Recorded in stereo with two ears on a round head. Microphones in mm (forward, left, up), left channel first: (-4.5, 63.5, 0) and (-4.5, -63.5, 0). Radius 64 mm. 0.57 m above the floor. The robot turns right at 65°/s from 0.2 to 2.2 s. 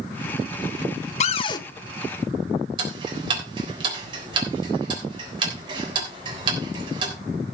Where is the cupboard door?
50° left (ahead or behind), 0.9 m; by 1.6 s 25° left (ahead or behind), 0.9 m.